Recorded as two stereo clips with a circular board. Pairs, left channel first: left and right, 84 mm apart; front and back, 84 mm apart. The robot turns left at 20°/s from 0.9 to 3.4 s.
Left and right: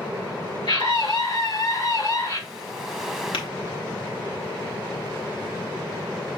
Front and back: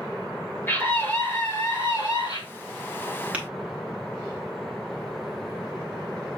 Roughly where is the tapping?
Left.